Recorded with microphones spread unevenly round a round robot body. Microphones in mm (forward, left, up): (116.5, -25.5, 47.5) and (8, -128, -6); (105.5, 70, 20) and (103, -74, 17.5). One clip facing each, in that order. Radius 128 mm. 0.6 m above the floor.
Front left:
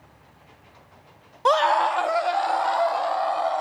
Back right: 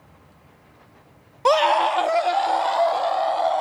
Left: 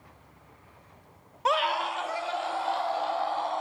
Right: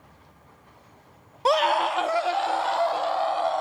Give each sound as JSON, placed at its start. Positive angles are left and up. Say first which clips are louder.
{"t": 1.4, "sound": "a scream", "louder": "back right 2 dB, right 6 dB", "azimuth_deg": -115, "distance_m": 0.6}